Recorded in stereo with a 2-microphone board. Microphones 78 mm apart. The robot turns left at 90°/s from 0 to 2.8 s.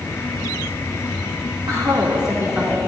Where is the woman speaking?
75° right, 2.5 m; by 2.9 s straight behind, 2.5 m.